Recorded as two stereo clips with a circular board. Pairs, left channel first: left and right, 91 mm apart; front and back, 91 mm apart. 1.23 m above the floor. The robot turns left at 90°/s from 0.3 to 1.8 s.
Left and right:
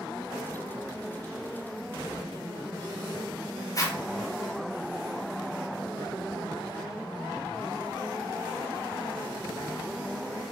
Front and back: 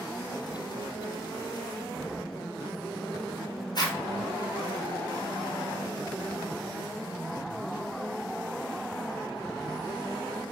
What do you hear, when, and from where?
3.8 s a zipper: 40° left, 1.9 m